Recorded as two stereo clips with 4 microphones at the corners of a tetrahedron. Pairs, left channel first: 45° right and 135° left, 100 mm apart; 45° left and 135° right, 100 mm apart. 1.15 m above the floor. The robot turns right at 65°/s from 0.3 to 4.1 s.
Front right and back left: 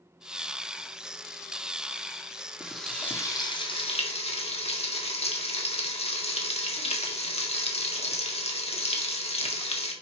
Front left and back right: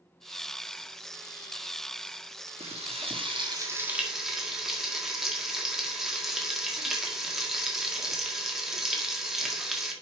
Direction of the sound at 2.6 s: 145° right.